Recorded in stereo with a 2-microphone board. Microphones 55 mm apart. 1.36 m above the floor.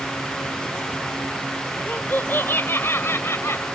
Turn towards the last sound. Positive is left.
turn(degrees=50)  # may be behind; listen again after turning